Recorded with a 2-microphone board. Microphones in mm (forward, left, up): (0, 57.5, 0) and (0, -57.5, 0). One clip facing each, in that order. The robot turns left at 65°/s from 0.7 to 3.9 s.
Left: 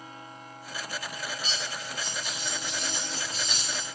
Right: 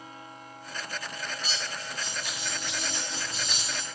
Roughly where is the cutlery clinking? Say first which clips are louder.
Even; ahead.